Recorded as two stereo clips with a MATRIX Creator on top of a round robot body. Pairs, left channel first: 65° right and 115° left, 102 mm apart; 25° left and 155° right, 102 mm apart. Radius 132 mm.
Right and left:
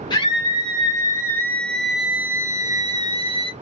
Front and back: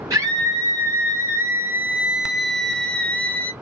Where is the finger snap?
I don't hear a finger snap.